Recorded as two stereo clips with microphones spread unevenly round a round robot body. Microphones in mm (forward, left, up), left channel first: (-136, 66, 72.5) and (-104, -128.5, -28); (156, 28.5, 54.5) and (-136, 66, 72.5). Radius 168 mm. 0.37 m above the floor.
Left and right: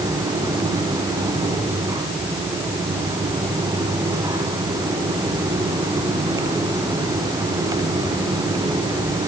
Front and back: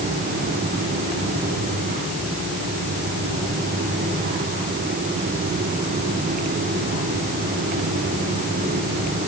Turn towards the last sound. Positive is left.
No sound to turn to.